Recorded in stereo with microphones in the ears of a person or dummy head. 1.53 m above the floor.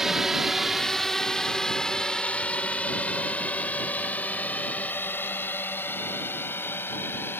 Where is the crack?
No crack in this recording.